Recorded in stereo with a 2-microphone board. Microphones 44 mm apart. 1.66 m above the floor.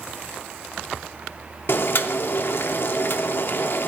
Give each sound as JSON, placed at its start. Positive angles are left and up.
{"t": 1.7, "sound": "boiling", "side_deg": 55, "distance_m": 0.5}